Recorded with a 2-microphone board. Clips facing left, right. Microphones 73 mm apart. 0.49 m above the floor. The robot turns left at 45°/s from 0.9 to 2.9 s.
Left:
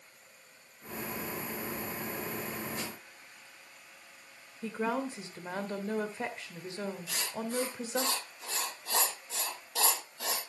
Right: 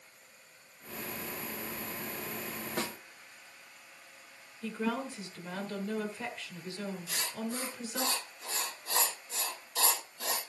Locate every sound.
2.8 s a snare drum: 65° right (ahead or behind), 0.9 m; by 3.0 s 70° right (ahead or behind), 0.9 m
4.6 s a woman speaking: 30° left (ahead or behind), 1.4 m
7.1 s writing: 85° left, 5 m